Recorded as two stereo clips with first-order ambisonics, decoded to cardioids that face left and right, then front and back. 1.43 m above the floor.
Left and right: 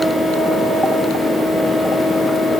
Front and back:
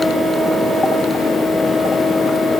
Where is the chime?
No chime in this recording.